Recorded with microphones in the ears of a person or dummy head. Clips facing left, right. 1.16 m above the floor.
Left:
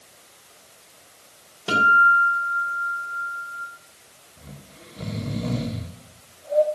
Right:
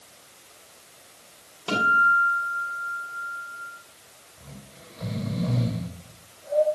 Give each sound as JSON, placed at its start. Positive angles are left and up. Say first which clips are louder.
{"t": 1.7, "sound": "a guitar", "louder": "left 3 dB", "side_deg": 20, "distance_m": 3.5}
{"t": 4.4, "sound": "snoring", "louder": "left 1 dB", "side_deg": 40, "distance_m": 3.0}